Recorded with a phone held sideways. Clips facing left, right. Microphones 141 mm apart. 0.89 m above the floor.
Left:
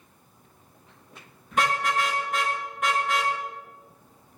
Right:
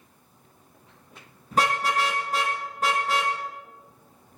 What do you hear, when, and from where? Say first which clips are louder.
1.5 s a car horn: right 1 dB; 40° right (ahead or behind), 8 m